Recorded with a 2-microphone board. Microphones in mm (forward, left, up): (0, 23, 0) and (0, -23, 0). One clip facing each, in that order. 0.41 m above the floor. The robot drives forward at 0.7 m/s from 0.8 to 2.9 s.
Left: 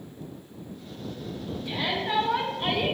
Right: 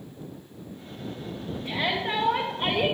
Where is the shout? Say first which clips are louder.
Right 1 dB; 50° right (ahead or behind), 2 m; by 2.9 s 60° right (ahead or behind), 1.9 m.